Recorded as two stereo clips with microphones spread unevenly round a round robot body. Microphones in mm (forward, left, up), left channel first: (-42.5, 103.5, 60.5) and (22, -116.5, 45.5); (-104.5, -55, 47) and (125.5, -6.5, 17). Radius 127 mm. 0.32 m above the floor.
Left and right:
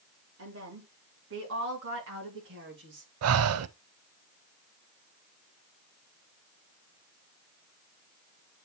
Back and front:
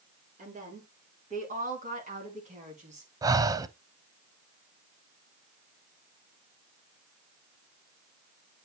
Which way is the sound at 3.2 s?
60° right.